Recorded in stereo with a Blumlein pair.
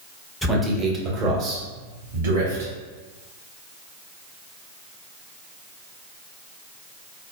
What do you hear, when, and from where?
0.4 s a man speaking: straight ahead, 0.9 m; by 2.7 s 65° right, 1.3 m